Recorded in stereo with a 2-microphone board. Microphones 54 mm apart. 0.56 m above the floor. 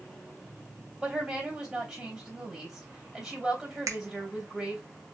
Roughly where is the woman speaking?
Centre.